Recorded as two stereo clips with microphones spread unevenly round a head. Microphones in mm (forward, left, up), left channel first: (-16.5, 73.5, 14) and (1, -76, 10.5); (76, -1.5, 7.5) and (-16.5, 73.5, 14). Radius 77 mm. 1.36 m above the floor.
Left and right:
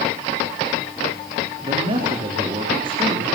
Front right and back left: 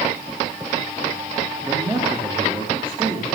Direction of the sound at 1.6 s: 140° right.